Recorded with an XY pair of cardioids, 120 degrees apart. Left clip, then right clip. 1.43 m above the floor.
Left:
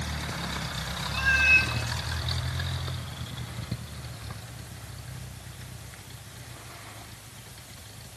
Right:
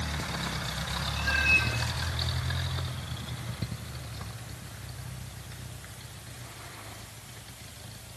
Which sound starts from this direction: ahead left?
A cat meowing, at 1.1 s.